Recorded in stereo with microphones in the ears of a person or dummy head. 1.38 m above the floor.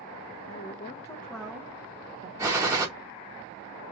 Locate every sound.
0.5 s a woman speaking: 45° left (ahead or behind), 1.0 m; by 2.3 s 35° right (ahead or behind), 1.2 m
2.4 s a gunshot: 15° right (ahead or behind), 1.0 m